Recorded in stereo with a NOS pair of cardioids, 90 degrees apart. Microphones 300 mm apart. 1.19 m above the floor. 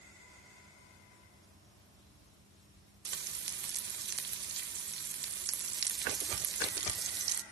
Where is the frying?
35° right, 1.0 m.